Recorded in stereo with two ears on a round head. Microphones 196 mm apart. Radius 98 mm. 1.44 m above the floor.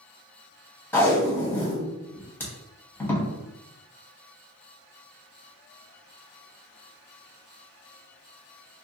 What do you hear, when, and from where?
0.9 s tape being pulled: 10° left (ahead or behind), 0.7 m